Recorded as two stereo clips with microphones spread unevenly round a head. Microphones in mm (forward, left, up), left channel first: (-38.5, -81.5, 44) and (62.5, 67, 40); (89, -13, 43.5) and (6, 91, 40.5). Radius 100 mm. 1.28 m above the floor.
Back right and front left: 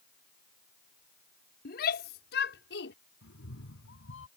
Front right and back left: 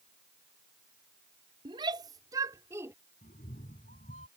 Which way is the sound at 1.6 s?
165° right.